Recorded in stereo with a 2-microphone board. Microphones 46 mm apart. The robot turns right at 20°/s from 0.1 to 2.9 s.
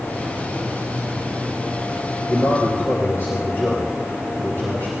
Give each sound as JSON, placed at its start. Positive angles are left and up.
{"t": 2.3, "sound": "a man speaking", "side_deg": 65, "distance_m": 4.0}